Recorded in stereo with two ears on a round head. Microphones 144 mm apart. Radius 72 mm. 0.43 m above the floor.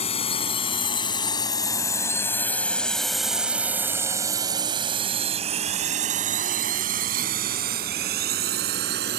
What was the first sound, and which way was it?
A drone, 40° left (ahead or behind).